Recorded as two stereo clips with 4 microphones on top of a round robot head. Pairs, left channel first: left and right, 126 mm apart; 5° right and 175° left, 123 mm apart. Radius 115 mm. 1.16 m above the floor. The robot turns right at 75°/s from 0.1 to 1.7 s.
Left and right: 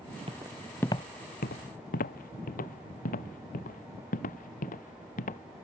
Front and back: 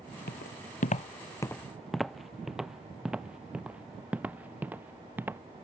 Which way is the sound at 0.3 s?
30° right.